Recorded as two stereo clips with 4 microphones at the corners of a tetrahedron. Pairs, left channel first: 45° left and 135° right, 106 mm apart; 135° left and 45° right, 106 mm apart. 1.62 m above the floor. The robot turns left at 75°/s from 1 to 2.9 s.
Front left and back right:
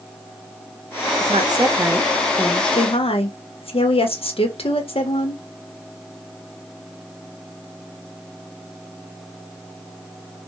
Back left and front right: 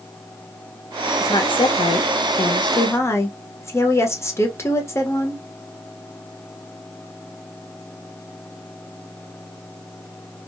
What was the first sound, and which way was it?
A woman speaking, 160° right.